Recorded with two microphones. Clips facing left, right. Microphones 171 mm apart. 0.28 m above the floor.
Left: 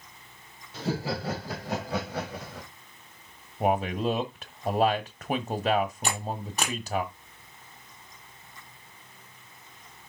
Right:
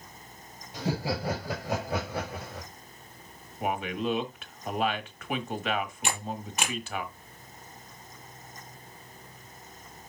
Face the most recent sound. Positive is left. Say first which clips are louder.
# left 2 dB
turn(degrees=35)  # may be behind; listen again after turning